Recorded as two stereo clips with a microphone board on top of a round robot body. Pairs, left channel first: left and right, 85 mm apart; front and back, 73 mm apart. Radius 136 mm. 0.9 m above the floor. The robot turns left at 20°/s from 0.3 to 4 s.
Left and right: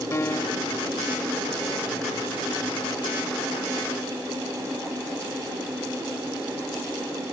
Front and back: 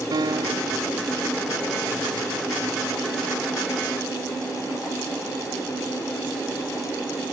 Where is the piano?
150° left; by 0.8 s 140° left.